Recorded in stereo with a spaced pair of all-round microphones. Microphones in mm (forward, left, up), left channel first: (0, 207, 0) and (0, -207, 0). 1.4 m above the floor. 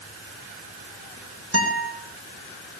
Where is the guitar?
35° right (ahead or behind), 4 m.